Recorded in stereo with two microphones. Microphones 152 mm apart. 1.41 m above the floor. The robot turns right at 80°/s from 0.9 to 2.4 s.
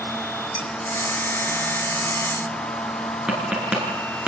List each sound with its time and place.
0.6 s dishes clattering: 35° left (ahead or behind), 5.5 m
3.3 s tapping: 5° right (ahead or behind), 7 m